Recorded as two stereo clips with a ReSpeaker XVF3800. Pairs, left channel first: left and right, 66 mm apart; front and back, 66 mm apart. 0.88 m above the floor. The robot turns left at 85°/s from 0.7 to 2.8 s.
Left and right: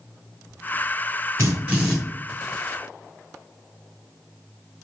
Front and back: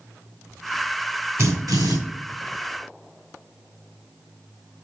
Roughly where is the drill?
Behind right.